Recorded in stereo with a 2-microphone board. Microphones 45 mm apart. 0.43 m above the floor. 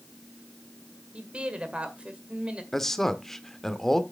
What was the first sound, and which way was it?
A woman speaking, 25° right (ahead or behind).